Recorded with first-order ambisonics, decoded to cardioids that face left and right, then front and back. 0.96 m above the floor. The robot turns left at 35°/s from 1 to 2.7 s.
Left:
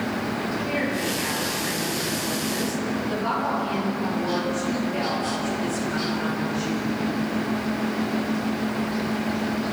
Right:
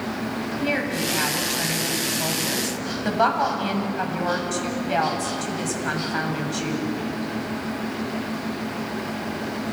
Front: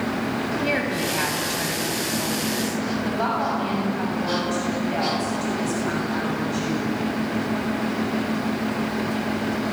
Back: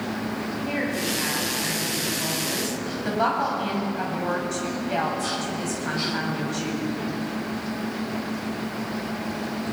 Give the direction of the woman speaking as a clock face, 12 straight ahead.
1 o'clock.